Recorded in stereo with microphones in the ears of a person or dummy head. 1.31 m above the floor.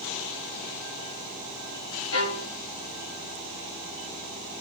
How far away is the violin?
About 1.1 m.